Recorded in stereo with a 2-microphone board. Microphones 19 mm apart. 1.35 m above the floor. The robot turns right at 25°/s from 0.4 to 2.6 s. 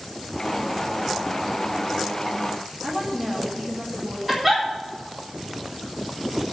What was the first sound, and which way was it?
A woman speaking, 5° right (ahead or behind).